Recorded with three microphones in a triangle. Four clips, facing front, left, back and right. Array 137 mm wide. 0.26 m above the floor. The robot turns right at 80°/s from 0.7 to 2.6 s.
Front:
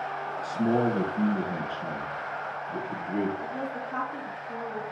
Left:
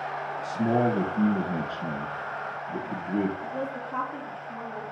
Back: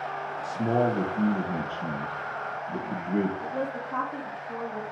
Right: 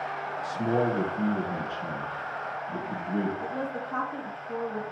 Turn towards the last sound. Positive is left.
turn(degrees=-105)